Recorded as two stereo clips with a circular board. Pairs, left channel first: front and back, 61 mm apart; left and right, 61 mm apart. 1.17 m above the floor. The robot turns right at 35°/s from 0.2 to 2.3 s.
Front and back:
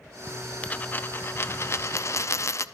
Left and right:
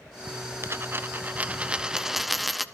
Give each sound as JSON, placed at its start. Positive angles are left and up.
{"t": 0.6, "sound": "a dropped coin", "azimuth_deg": -60, "distance_m": 0.7}